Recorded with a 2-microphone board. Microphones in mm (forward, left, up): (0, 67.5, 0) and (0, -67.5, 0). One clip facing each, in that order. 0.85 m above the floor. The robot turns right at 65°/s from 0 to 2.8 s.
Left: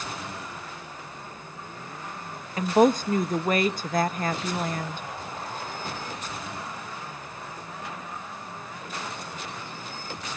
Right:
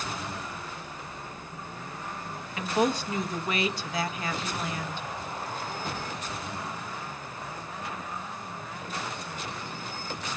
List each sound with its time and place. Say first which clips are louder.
2.6 s a woman speaking: left 7 dB; 40° left (ahead or behind), 0.6 m; by 5.0 s 45° left (ahead or behind), 0.6 m